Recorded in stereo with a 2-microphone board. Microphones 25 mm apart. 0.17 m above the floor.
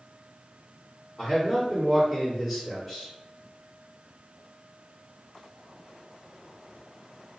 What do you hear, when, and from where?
1.2 s a man speaking: centre (ahead or behind), 1.6 m